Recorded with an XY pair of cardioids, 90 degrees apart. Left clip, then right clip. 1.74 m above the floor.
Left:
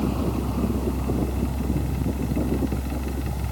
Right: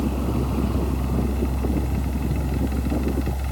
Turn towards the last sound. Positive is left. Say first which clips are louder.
# even
turn(degrees=-20)